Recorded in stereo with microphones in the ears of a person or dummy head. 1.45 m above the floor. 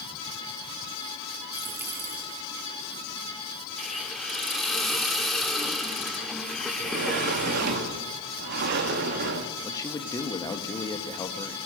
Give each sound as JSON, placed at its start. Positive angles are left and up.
{"t": 1.5, "sound": "a dropped coin", "side_deg": -10, "distance_m": 3.0}
{"t": 3.8, "sound": "a hiss", "side_deg": 0, "distance_m": 1.8}
{"t": 6.8, "sound": "a sliding door", "side_deg": -60, "distance_m": 1.8}
{"t": 9.6, "sound": "a man speaking", "side_deg": 20, "distance_m": 1.8}